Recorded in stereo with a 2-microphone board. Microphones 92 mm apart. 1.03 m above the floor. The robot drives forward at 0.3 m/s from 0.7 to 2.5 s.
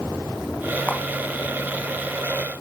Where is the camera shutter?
20° left (ahead or behind), 3 m.